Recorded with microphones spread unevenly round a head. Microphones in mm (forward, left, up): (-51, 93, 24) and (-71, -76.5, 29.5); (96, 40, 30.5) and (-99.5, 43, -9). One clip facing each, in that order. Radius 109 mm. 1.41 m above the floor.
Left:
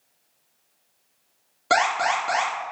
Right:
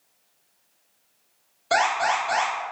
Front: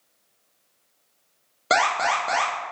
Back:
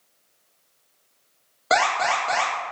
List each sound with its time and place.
1.7 s an alarm: 55° left, 1.1 m